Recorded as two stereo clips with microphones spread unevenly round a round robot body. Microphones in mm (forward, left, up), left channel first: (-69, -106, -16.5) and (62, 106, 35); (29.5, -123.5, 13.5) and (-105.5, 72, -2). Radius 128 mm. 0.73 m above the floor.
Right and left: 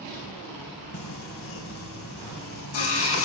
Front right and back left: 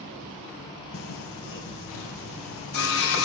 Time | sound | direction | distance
0.9 | singing | 85° right | 4 m